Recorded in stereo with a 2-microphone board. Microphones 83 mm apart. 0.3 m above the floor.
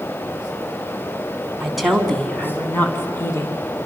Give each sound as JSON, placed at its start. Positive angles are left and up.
{"t": 1.6, "sound": "a woman speaking", "side_deg": -5, "distance_m": 2.5}